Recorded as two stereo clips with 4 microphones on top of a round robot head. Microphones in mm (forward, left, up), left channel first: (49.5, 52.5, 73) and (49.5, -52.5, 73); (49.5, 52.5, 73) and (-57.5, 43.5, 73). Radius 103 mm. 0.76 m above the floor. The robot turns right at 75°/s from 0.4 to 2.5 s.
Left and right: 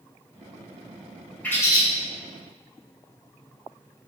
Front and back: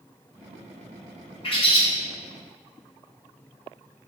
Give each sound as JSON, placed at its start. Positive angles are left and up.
{"t": 1.4, "sound": "a bird", "azimuth_deg": 15, "distance_m": 1.3}